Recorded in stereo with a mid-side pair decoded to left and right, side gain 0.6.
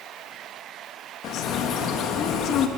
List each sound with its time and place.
1.2 s a bird: 60° left, 3 m